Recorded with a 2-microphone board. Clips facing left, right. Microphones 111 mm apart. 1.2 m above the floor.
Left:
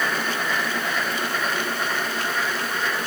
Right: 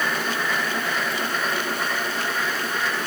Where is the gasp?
No gasp in this recording.